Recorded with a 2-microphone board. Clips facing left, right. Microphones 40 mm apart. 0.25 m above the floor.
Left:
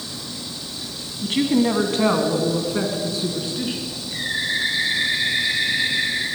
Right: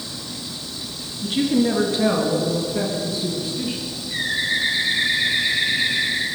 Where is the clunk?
No clunk in this recording.